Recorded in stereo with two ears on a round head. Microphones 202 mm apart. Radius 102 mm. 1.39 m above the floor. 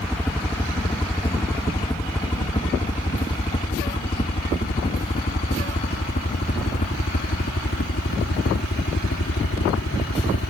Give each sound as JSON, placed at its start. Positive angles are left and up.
{"t": 0.0, "sound": "a helicopter", "side_deg": 5}